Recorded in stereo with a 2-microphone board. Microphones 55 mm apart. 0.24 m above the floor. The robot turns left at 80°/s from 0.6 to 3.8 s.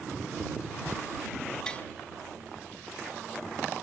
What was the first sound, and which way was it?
Tapping, 15° left (ahead or behind).